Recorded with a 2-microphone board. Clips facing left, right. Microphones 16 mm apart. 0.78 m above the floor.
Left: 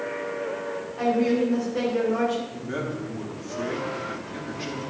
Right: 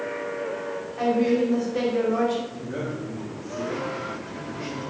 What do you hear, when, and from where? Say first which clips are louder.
1.0 s a woman speaking: right 1 dB; 10° right (ahead or behind), 2.5 m
2.5 s a man speaking: left 1 dB; 40° left (ahead or behind), 1.4 m